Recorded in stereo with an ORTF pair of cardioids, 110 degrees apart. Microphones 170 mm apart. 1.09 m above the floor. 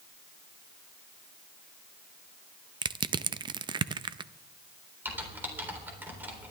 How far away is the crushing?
About 0.5 m.